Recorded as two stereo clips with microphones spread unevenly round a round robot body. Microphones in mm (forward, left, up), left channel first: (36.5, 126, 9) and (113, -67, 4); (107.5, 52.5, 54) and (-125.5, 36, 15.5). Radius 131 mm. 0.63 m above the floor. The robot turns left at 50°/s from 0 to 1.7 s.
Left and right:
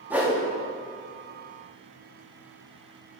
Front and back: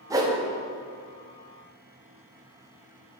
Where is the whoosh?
140° right, 0.9 m; by 0.4 s 155° right, 0.9 m.